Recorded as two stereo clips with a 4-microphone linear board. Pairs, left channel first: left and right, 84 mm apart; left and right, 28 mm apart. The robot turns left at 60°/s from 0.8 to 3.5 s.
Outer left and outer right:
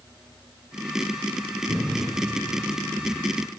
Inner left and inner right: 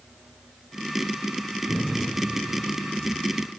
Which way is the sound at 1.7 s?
45° left (ahead or behind).